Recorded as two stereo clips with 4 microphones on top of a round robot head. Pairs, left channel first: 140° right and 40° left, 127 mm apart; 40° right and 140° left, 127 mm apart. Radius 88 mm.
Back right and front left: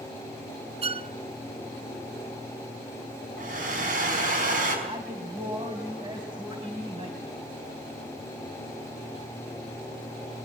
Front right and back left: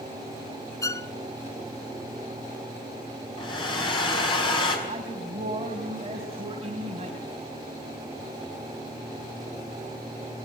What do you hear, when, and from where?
0.8 s a violin: 20° left, 0.8 m
3.4 s a hair dryer: 15° left, 5 m
4.9 s a man speaking: 95° left, 3.5 m